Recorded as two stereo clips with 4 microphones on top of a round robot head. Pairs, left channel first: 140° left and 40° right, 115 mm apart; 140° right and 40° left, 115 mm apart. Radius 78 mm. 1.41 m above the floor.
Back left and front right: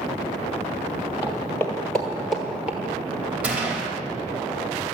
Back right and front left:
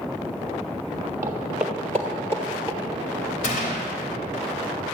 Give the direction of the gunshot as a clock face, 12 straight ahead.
4 o'clock.